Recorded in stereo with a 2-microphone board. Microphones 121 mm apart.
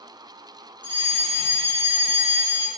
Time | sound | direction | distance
0.8 | a fire alarm | 40° right (ahead or behind) | 5.5 m